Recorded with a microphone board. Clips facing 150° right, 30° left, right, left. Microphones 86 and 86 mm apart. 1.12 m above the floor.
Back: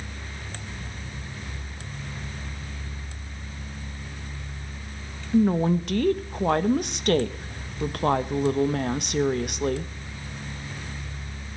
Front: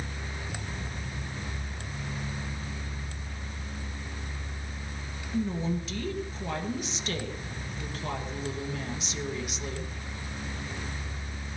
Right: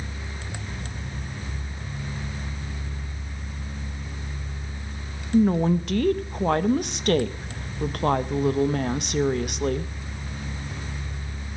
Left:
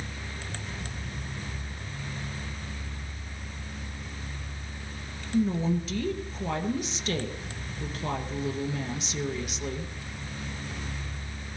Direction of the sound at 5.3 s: 120° right.